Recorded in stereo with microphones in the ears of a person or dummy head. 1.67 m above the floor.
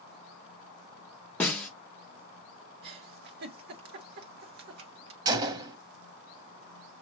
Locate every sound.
1.4 s a snare drum: 10° left (ahead or behind), 0.9 m
2.8 s a giggle: 65° right (ahead or behind), 1.1 m
5.2 s a gunshot: 25° right (ahead or behind), 0.8 m